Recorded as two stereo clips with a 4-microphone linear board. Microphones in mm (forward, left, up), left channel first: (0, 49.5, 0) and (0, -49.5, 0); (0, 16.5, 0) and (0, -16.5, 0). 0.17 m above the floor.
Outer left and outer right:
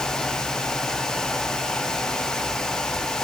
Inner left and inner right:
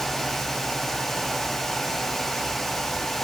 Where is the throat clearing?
No throat clearing in this recording.